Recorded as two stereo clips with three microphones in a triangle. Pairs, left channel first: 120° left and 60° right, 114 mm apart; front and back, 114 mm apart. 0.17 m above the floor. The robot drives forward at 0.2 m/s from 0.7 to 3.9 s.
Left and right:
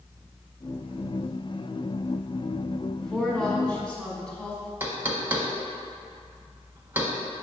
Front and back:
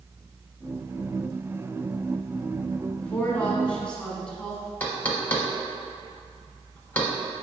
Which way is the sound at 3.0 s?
45° left.